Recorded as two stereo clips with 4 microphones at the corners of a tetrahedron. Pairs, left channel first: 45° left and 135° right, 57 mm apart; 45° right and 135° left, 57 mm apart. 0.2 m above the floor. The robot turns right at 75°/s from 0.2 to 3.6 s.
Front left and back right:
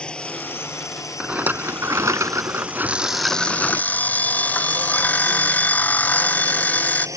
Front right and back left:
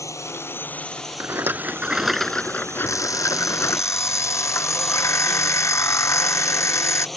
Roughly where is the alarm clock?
Right.